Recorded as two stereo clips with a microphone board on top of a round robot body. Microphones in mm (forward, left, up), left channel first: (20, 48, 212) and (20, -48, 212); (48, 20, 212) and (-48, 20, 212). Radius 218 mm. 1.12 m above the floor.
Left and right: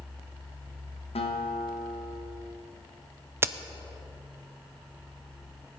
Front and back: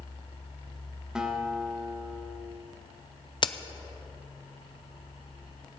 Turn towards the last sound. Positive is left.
turn(degrees=-25)